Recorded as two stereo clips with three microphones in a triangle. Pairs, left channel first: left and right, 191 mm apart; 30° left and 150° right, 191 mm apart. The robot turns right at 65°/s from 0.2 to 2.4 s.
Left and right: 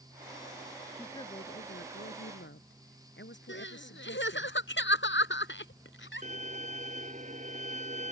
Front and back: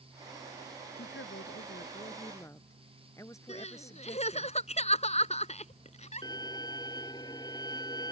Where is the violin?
40° right.